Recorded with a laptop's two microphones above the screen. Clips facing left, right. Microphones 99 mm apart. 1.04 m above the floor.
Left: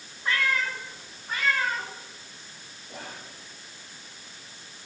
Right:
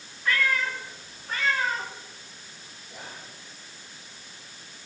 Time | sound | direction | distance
0.2 | a cat meowing | 25° left (ahead or behind) | 1.9 m
2.9 | whispering | 60° left (ahead or behind) | 1.8 m